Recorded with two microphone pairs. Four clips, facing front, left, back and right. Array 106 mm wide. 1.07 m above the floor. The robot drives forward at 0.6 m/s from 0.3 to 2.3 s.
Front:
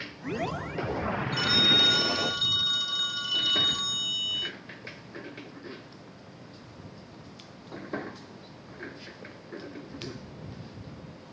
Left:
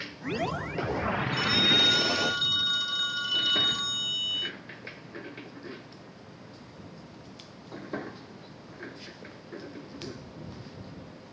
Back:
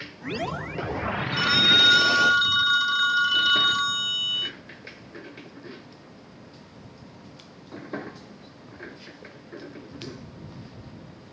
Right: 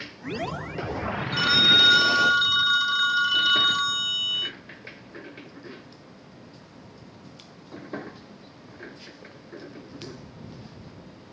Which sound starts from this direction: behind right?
A phone ringing, at 1.3 s.